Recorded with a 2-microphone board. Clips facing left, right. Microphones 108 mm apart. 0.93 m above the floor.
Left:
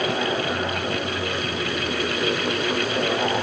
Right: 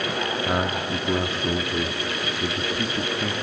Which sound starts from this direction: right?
A man speaking, at 0.5 s.